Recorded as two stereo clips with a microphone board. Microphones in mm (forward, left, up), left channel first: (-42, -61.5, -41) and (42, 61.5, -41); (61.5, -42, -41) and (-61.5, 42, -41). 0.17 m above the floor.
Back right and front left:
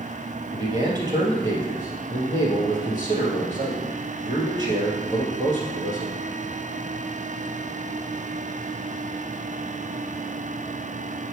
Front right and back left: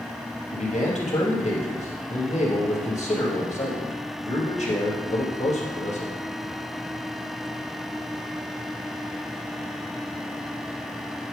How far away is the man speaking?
About 2.5 m.